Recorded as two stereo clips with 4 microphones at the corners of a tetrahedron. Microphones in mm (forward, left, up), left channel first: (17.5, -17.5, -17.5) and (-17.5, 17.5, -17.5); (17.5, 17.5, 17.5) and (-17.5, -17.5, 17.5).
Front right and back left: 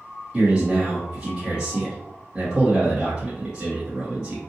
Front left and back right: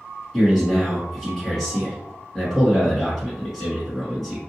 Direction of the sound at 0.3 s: 120° left.